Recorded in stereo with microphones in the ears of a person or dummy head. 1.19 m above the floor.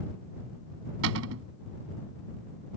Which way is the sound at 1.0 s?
75° right (ahead or behind).